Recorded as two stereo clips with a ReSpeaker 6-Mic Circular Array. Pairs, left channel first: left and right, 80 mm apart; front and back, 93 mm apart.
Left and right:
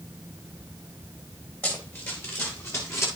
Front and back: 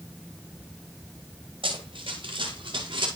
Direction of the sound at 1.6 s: 155° left.